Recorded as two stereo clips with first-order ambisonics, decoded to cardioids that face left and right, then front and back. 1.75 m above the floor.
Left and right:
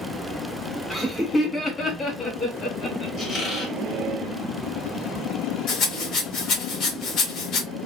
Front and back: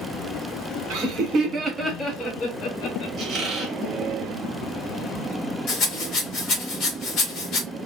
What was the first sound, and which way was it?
Laughter, 175° left.